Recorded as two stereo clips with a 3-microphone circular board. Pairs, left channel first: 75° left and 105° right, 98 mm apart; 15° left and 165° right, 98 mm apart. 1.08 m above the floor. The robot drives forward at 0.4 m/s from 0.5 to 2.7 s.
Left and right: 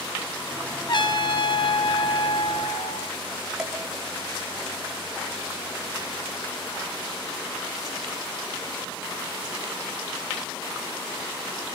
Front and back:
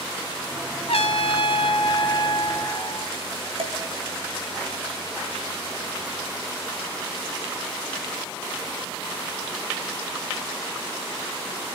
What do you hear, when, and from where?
0.9 s a trumpet: 35° left, 1.5 m; by 3.1 s 60° left, 1.0 m
3.6 s dishes clattering: 170° left, 5 m